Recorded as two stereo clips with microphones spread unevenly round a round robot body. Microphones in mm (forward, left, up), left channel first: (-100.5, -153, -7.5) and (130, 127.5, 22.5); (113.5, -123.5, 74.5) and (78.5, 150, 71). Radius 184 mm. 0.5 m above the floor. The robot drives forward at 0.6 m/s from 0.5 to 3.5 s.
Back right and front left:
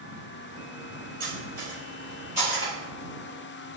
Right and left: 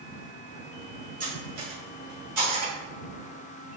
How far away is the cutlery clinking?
About 1.9 m.